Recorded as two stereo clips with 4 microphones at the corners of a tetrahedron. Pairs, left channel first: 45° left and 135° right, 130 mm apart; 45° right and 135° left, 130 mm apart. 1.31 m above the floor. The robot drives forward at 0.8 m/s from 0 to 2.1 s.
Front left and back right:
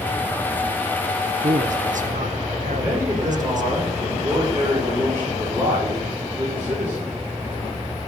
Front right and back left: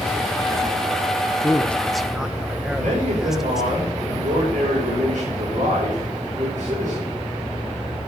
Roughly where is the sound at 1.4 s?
Behind right.